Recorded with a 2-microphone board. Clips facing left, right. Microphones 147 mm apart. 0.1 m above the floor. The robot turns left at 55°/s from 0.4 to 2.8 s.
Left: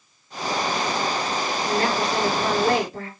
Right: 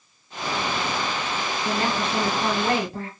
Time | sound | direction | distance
1.6 | a woman speaking | 20° right | 1.9 m